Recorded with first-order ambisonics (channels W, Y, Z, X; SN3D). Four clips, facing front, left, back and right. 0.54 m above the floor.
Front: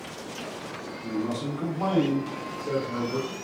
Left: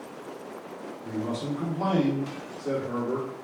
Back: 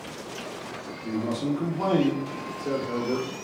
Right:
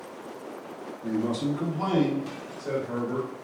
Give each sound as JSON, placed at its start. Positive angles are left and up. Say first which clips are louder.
{"t": 1.0, "sound": "a man speaking", "louder": "right 4 dB, back 2 dB", "azimuth_deg": -110, "distance_m": 1.0}